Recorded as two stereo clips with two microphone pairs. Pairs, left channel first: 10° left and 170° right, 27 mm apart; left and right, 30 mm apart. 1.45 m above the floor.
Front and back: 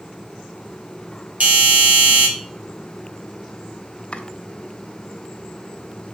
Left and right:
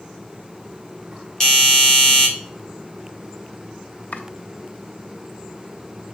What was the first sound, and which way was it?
A doorbell, 155° left.